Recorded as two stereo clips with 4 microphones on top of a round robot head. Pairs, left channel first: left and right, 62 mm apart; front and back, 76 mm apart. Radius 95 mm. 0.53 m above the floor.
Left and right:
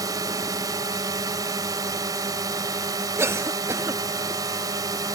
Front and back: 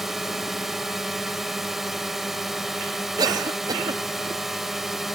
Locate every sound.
0.0 s a drone: 90° right
3.2 s a cough: 140° right